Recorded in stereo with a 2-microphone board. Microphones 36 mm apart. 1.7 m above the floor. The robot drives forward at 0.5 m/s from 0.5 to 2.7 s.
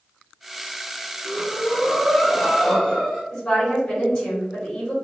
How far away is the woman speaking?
About 1.5 m.